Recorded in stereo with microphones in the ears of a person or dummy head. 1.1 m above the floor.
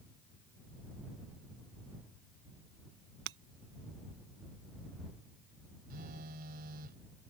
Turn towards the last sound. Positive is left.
turn(degrees=-55)  # may be behind; listen again after turning